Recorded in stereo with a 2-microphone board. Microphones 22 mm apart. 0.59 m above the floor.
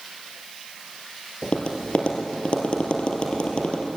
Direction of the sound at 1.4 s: 50° left (ahead or behind).